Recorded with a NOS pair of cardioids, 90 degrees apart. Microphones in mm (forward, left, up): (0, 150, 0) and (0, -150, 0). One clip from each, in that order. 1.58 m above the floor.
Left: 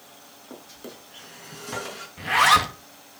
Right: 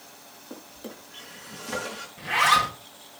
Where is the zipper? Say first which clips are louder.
Left 3 dB; 30° left, 2.5 m.